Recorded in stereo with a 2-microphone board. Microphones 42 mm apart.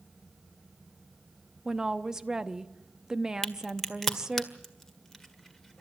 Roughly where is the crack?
Centre.